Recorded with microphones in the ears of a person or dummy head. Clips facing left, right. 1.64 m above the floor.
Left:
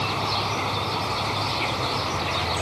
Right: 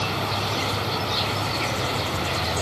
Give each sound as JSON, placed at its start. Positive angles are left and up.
{"t": 0.0, "sound": "an insect", "side_deg": -15}